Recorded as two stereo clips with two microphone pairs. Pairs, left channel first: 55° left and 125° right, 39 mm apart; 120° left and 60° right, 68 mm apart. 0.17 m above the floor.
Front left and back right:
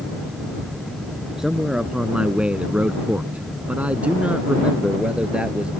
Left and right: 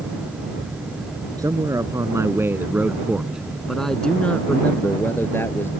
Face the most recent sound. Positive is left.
turn(degrees=175)